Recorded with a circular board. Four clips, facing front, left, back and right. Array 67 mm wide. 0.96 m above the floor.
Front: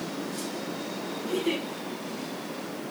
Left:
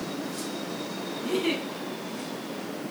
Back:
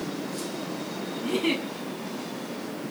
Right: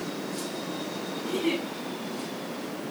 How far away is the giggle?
About 10 m.